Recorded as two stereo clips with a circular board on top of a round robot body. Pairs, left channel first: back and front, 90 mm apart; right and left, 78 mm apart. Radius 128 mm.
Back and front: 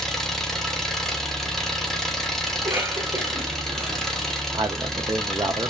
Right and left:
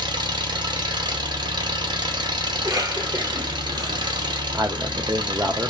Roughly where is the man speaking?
Ahead left.